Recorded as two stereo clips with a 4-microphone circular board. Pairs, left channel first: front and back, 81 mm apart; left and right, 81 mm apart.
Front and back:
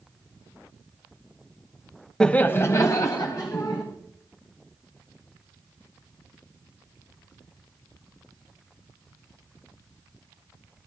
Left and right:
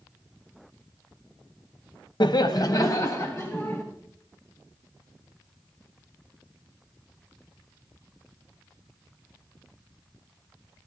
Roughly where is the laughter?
Left.